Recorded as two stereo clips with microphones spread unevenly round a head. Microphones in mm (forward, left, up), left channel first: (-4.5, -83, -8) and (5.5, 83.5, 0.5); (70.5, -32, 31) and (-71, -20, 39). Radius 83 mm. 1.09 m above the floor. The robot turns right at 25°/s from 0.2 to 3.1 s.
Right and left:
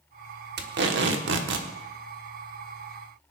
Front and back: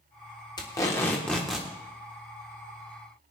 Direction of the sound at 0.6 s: 60° left.